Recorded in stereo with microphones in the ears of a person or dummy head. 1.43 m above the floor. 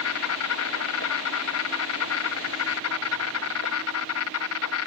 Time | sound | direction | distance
0.0 | an insect | 75° left (ahead or behind) | ?